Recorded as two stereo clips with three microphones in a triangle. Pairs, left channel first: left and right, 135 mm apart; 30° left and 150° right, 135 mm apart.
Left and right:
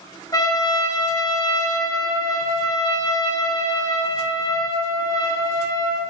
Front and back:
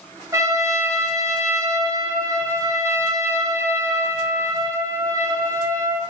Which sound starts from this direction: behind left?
A trumpet, at 0.3 s.